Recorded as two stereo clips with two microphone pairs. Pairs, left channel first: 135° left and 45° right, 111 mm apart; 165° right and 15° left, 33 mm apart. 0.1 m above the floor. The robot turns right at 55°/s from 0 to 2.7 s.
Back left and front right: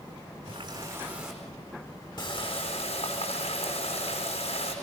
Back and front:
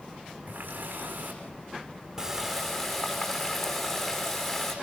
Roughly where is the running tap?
Ahead.